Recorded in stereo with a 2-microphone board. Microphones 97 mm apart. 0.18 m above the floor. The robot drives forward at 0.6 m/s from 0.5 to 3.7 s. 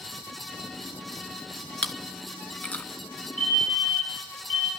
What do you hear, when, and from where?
1.8 s chewing: 10° left (ahead or behind), 1.2 m; by 2.9 s 15° left (ahead or behind), 0.7 m
3.4 s a fire alarm: 10° left (ahead or behind), 6.5 m